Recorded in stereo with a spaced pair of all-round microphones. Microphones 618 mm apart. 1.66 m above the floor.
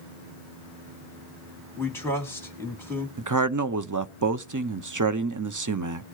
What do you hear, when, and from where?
1.8 s a man speaking: 5° left (ahead or behind), 3 m
3.2 s a man speaking: 30° right (ahead or behind), 0.6 m